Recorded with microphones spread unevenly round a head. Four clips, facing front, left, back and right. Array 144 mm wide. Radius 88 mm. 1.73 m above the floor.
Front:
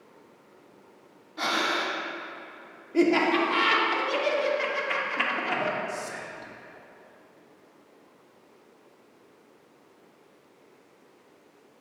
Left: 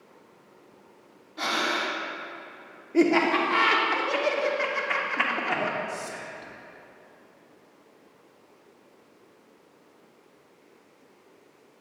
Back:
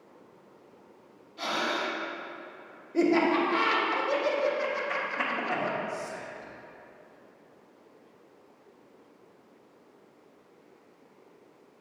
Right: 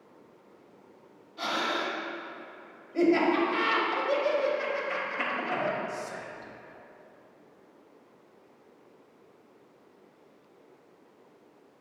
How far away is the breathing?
About 1.0 m.